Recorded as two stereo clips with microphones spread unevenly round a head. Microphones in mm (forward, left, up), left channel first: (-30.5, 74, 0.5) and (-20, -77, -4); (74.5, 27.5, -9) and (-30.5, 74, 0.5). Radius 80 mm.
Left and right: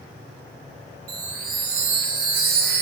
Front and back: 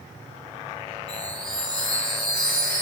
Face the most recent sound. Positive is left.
turn(degrees=-110)